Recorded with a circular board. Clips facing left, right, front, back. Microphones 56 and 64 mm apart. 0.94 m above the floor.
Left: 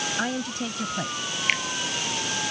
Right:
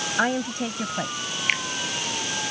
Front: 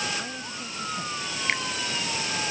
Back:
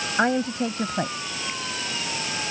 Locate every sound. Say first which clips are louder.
0.2 s a woman speaking: right 9 dB, back 13 dB; 155° right; by 1.3 s 165° right
1.5 s a finger snap: even, front 10 dB; 5° right